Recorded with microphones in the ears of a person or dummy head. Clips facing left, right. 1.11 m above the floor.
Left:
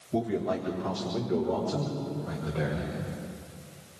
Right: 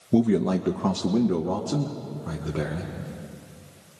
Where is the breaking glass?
I don't hear breaking glass.